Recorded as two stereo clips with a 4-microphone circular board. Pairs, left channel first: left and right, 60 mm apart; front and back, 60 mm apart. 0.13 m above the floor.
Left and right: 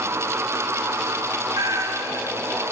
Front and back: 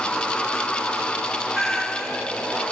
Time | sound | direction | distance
1.5 | a cat meowing | 85° right | 1.3 m